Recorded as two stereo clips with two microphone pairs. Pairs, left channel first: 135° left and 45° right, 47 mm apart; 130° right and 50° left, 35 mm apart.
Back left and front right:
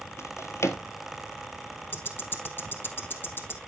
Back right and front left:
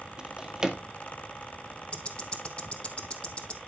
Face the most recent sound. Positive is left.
turn(degrees=175)